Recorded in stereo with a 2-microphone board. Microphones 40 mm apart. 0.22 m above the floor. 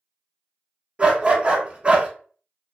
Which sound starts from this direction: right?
A dog barking, at 1.0 s.